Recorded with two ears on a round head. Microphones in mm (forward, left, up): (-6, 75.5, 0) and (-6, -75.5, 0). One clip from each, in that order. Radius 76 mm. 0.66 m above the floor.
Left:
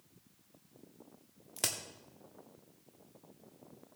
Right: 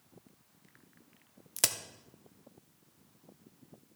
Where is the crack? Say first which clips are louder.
Right 4 dB; 25° right (ahead or behind), 0.7 m.